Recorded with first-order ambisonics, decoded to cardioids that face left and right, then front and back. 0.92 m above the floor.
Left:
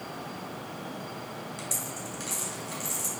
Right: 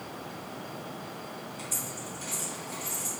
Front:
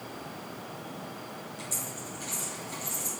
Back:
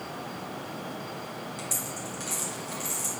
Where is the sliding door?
I don't hear a sliding door.